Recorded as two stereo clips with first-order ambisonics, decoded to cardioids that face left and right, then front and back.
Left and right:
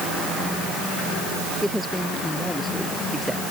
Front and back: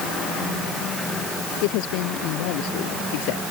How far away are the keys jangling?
I don't hear keys jangling.